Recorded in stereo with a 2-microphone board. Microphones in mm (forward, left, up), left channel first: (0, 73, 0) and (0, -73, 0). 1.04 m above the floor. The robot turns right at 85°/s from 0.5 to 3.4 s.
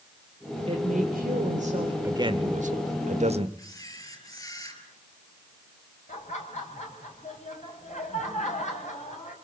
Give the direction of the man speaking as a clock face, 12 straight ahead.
5 o'clock.